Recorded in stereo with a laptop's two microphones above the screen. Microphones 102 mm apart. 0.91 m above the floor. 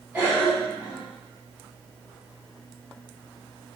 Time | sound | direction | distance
0.1 | a cough | 15° right (ahead or behind) | 1.8 m